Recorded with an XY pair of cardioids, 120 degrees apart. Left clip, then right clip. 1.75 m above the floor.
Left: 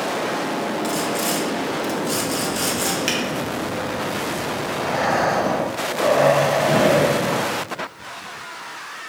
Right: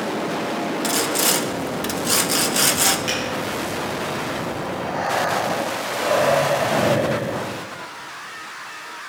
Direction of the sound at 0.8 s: 45° right.